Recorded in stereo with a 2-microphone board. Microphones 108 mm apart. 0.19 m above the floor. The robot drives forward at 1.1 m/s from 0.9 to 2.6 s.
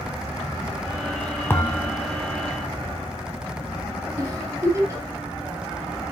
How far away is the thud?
About 1.2 m.